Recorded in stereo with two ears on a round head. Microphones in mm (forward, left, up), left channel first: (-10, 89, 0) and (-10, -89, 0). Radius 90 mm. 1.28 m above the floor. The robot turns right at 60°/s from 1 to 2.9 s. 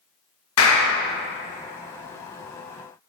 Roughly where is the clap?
Left.